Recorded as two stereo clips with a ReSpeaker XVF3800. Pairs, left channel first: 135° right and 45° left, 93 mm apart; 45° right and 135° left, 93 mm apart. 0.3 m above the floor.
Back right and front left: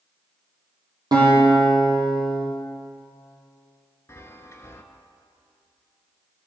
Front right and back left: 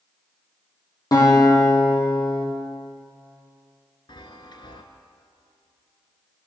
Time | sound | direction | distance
1.1 | a guitar | straight ahead | 2.5 m
4.1 | a chime | 80° right | 0.6 m